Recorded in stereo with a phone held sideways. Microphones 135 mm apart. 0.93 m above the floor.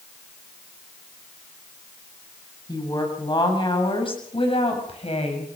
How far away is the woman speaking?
About 7 m.